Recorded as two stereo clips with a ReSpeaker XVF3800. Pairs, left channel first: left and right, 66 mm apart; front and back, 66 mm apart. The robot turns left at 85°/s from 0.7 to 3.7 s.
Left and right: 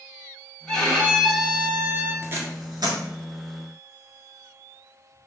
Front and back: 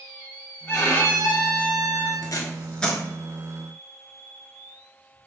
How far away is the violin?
About 1.0 m.